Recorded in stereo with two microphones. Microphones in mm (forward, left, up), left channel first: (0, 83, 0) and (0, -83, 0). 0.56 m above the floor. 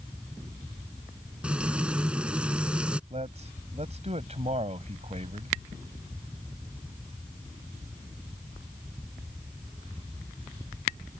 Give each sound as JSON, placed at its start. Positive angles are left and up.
{"t": 1.4, "sound": "frying", "side_deg": -5}
{"t": 3.1, "sound": "a man speaking", "side_deg": -40}